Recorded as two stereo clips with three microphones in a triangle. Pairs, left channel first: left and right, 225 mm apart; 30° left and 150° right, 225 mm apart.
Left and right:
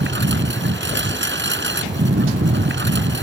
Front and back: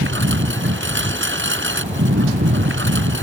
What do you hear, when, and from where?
0.0 s a lawn mower: 120° right